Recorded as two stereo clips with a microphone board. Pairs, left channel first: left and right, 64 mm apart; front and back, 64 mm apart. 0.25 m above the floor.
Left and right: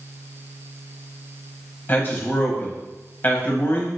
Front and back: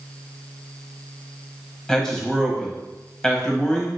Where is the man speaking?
75° left, 1.0 m.